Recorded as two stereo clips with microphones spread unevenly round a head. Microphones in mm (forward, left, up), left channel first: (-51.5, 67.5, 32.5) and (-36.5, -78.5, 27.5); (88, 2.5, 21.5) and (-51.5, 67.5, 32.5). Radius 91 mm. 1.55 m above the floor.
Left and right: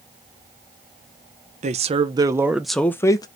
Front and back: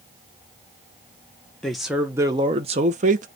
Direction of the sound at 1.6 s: 115° right.